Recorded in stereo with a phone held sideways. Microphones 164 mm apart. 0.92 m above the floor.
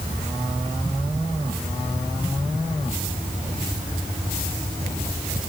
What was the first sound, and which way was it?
Only background noise.